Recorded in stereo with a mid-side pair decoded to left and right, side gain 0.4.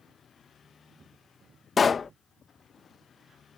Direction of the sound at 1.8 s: 45° left.